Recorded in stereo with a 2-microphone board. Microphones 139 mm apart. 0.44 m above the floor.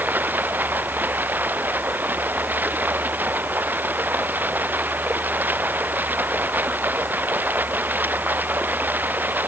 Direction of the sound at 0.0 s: 15° right (ahead or behind).